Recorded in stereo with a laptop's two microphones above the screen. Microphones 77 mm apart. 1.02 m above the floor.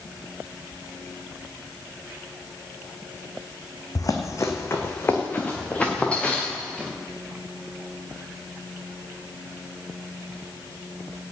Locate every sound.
4.0 s running footsteps: 50° left (ahead or behind), 2 m; by 6.9 s 10° left (ahead or behind), 5 m